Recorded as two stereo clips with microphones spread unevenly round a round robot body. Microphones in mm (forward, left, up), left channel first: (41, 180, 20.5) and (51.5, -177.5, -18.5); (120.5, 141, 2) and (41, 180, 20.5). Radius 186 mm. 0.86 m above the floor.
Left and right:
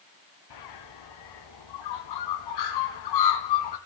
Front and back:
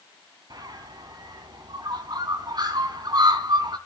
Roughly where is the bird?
Behind left.